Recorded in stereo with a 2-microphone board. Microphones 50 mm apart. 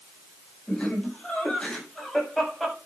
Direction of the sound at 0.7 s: 20° left (ahead or behind).